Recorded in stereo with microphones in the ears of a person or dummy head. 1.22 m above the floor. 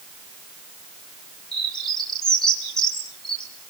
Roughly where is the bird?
Centre.